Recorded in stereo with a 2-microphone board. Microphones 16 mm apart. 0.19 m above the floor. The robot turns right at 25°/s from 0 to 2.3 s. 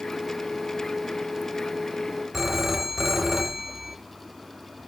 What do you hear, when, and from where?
2.3 s a phone ringing: 15° right (ahead or behind), 1.6 m